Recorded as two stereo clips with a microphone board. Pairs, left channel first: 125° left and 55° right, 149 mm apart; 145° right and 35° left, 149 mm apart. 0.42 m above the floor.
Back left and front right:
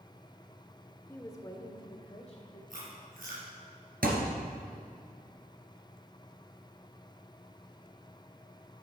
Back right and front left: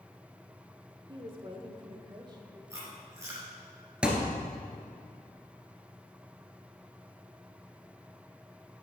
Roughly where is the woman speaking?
Ahead left.